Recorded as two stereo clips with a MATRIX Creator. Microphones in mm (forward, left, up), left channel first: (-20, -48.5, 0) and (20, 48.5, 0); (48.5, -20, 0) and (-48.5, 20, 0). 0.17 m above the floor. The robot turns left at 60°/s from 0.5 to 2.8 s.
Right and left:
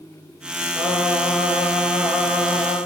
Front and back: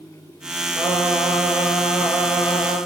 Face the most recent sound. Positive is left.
turn(degrees=20)